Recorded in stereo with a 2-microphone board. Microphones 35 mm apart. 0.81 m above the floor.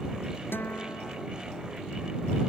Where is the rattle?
No rattle in this recording.